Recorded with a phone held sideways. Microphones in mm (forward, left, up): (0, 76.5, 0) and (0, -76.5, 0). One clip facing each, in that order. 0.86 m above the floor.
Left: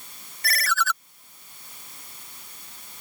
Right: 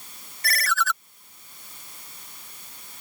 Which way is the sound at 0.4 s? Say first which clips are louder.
Even; centre (ahead or behind).